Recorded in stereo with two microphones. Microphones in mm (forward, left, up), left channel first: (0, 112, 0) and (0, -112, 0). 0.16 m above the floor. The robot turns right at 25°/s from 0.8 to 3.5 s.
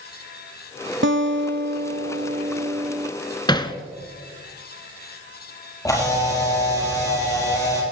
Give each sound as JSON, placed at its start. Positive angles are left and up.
{"t": 1.0, "sound": "a guitar", "azimuth_deg": -70, "distance_m": 0.7}
{"t": 3.5, "sound": "hammering", "side_deg": 20, "distance_m": 0.9}
{"t": 5.8, "sound": "a camera shutter", "side_deg": 15, "distance_m": 4.0}